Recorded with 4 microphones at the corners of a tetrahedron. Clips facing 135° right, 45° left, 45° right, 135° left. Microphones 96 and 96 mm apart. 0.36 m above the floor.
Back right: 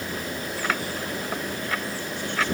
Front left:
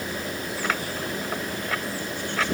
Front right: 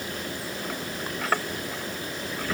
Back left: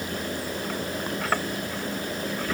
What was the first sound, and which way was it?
Only background noise.